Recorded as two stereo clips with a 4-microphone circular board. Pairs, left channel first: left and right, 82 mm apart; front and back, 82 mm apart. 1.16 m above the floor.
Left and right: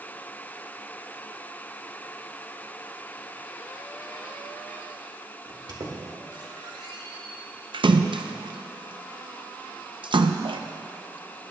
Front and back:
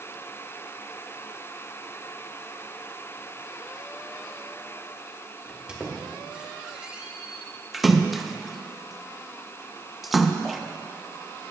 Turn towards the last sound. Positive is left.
turn(degrees=-90)